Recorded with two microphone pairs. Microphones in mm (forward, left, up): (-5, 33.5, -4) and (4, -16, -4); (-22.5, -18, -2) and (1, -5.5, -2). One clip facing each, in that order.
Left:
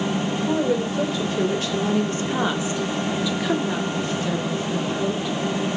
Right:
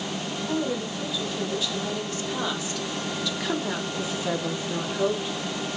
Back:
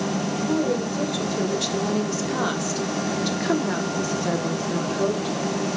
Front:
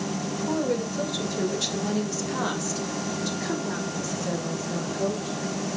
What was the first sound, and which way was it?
A woman speaking, 120° left.